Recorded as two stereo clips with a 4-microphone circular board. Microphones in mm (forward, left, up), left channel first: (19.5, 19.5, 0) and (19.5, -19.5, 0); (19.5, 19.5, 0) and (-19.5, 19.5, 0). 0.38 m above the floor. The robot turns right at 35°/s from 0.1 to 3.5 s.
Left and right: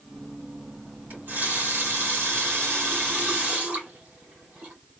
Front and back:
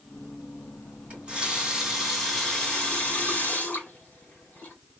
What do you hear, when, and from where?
1.1 s a running tap: 125° right, 2.5 m; by 4.8 s 40° right, 2.5 m